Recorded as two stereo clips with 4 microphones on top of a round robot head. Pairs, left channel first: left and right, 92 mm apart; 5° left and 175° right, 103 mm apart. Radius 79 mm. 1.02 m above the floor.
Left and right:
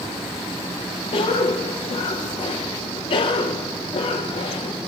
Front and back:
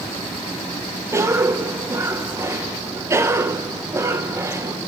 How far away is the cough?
About 0.6 m.